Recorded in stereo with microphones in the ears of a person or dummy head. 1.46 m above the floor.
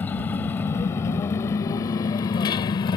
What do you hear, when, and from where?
0.0 s a motorcycle: 10° left (ahead or behind); by 3.0 s 25° left (ahead or behind)